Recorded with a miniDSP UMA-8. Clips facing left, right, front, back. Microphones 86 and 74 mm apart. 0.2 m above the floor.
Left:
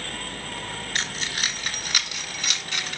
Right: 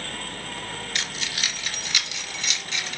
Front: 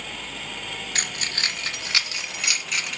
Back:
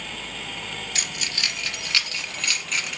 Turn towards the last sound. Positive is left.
turn(degrees=95)